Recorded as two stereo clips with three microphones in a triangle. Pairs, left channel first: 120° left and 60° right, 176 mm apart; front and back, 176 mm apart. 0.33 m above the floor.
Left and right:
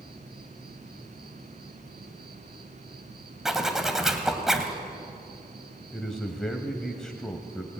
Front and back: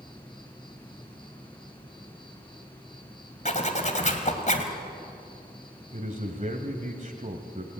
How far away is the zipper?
About 2.5 m.